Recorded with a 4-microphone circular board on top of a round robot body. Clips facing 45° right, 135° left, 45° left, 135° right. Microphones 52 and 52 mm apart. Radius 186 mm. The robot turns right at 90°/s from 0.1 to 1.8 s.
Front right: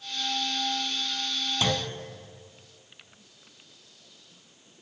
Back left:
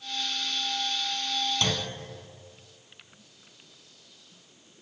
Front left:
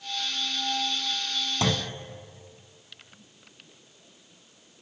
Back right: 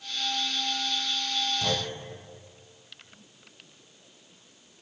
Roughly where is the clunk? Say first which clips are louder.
Front right 2 dB, front left 2 dB; ahead left.